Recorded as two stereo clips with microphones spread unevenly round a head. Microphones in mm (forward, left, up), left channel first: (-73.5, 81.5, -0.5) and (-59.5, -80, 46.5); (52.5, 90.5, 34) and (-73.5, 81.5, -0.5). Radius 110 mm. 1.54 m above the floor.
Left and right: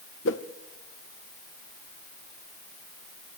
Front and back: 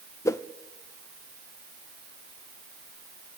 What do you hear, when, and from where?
0.2 s a whoosh: 65° left, 1.1 m